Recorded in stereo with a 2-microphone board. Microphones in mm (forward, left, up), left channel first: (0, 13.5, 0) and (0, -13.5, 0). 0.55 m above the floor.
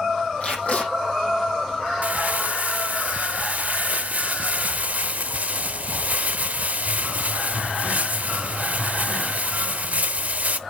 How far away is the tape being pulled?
About 6 m.